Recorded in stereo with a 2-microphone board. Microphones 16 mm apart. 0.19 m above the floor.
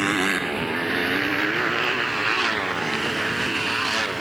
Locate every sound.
0.0 s a motorcycle: 10° right (ahead or behind); by 4.2 s 5° right (ahead or behind)